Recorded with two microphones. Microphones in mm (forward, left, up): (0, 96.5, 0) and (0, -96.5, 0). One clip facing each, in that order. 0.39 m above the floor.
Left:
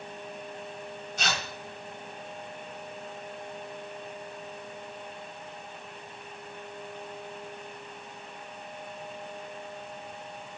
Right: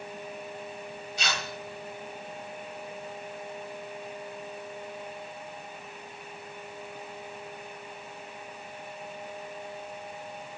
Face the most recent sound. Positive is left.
turn(degrees=50)  # may be behind; listen again after turning